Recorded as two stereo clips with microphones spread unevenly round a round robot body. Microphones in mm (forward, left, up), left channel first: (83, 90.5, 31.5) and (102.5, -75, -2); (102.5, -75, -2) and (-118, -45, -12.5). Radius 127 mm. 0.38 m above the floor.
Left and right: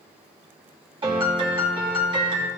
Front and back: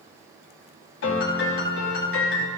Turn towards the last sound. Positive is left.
turn(degrees=-30)